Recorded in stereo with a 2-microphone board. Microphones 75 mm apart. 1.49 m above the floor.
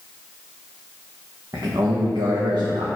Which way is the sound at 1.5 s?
55° right (ahead or behind).